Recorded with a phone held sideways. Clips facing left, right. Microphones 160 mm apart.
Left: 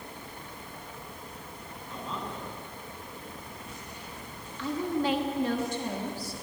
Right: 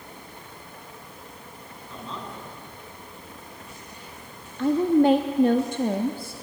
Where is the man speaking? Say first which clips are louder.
Even; 5° left (ahead or behind), 10 m.